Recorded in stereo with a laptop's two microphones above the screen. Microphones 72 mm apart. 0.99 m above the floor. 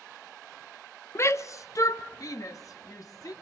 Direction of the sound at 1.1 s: 35° left (ahead or behind).